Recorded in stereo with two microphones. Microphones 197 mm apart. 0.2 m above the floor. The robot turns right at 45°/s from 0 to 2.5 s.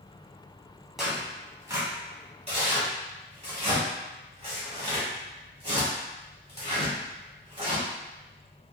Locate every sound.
1.0 s tearing paper: centre (ahead or behind), 1.1 m; by 7.8 s 30° right (ahead or behind), 1.1 m